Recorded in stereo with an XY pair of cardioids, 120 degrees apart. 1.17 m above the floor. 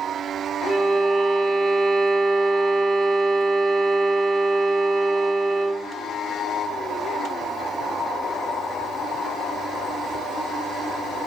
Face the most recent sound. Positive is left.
turn(degrees=-25)